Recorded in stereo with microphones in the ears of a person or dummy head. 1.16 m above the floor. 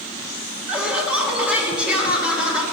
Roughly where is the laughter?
Centre.